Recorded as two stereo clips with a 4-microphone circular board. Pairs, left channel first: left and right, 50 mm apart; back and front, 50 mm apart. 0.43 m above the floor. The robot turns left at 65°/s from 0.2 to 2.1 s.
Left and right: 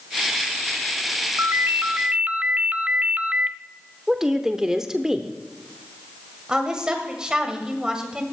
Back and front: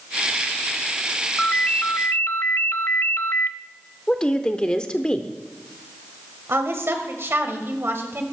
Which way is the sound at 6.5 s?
20° right.